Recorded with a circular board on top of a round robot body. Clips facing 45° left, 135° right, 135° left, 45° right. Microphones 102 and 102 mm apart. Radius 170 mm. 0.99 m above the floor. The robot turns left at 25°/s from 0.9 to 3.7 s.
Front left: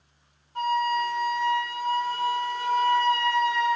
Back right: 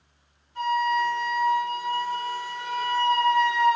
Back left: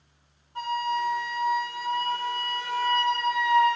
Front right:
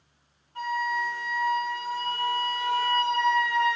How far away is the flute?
About 1.9 m.